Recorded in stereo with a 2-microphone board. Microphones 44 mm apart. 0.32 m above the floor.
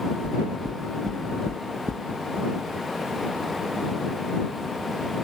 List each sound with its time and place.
0.2 s knocking: 80° right